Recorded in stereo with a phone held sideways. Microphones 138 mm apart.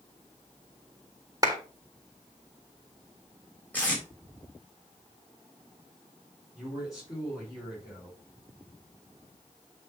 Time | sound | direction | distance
1.4 | a clap | 25° right (ahead or behind) | 1.5 m
3.7 | tape being pulled | 10° left (ahead or behind) | 3.5 m
6.5 | a man speaking | 25° left (ahead or behind) | 4 m